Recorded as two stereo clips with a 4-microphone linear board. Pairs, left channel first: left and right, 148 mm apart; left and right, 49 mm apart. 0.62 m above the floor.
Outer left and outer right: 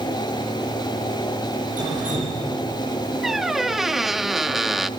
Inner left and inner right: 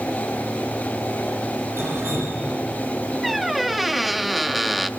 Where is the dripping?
65° right (ahead or behind), 9.5 m.